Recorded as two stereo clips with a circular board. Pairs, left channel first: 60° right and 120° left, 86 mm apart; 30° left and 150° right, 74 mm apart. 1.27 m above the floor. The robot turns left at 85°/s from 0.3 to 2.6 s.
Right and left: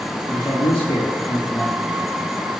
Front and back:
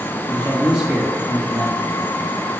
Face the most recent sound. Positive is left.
turn(degrees=135)